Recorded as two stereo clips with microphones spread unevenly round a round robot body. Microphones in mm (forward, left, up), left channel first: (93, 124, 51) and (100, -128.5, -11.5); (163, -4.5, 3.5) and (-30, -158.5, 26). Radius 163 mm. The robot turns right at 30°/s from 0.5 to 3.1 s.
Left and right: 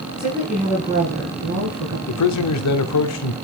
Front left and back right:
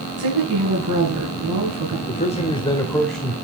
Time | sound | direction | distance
0.2 | a woman speaking | 175° right | 5 m
2.1 | a man speaking | 90° left | 1.2 m